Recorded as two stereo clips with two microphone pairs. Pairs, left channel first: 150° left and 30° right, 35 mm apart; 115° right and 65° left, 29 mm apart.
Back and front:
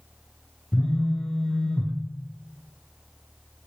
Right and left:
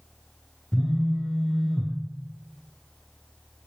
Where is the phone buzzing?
170° right, 1.7 m.